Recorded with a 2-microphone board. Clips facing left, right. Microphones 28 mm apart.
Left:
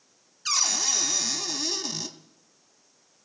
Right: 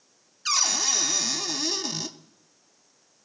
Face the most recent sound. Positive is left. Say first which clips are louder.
# right 1 dB
turn(degrees=-10)  # may be behind; listen again after turning